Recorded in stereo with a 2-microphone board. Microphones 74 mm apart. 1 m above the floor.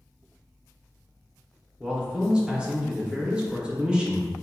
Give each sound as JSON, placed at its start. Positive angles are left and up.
{"t": 1.8, "sound": "a man speaking", "side_deg": -10, "distance_m": 0.8}